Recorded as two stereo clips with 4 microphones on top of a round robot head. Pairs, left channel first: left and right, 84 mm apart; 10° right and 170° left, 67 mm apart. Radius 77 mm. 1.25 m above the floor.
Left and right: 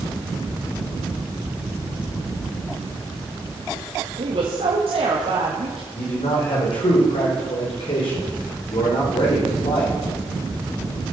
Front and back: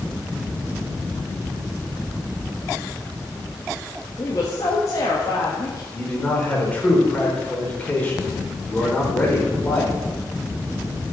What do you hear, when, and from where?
4.2 s a woman speaking: 65° right, 1.5 m
5.9 s a man speaking: 60° left, 4.5 m